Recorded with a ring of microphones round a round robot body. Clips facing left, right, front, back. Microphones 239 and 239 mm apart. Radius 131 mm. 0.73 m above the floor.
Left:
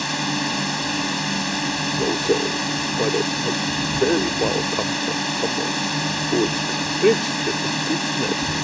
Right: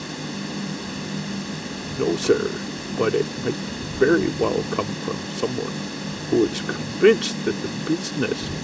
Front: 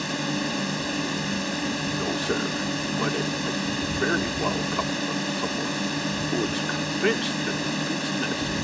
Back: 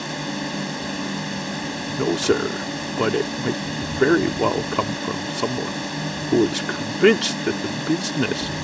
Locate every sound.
0.0 s a drone: 85° left
2.0 s a man speaking: 165° right